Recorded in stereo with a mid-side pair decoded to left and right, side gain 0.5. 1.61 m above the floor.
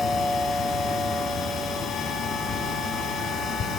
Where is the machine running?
65° left, 3 m.